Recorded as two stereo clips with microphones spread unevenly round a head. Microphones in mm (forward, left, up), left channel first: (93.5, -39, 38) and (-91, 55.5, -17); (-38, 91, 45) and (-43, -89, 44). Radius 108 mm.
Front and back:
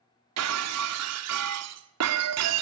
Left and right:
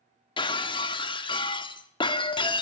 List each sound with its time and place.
0.4 s breaking glass: 155° left, 1.4 m